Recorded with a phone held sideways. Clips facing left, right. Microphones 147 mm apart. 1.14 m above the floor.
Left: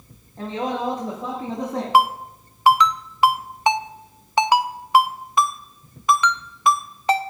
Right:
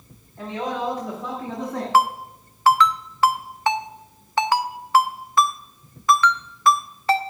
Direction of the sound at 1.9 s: 20° left (ahead or behind).